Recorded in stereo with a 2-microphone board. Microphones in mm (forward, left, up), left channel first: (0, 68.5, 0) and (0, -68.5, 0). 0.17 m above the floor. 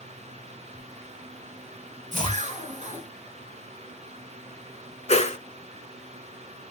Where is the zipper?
60° right (ahead or behind), 1.1 m.